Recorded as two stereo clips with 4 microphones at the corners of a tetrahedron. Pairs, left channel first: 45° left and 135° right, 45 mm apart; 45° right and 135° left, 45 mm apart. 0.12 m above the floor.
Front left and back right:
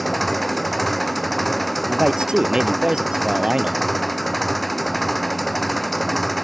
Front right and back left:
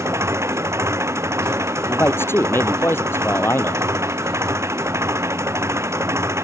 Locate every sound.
0.0 s an engine running: 135° left
1.9 s a man speaking: 65° right